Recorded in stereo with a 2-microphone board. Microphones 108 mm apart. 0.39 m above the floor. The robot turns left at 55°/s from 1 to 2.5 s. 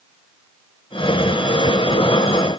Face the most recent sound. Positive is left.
No sound to turn to.